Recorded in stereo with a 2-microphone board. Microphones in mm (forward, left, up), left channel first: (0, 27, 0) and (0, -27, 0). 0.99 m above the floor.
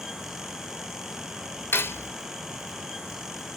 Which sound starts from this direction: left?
Cutlery clinking, at 1.7 s.